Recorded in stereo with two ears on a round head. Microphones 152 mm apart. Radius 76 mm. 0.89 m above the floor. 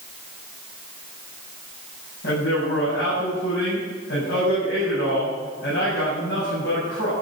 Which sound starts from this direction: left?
A man speaking, at 2.2 s.